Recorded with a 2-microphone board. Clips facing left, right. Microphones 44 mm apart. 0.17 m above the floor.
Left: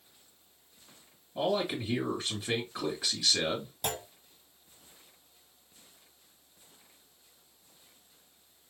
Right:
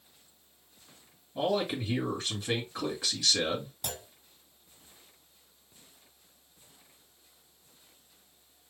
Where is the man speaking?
5° left (ahead or behind), 3 m.